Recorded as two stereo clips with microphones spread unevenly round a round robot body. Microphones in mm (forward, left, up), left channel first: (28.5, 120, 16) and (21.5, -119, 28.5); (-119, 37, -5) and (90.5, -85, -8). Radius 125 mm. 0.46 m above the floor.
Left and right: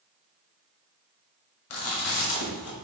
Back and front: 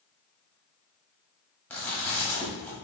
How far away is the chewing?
About 1.3 m.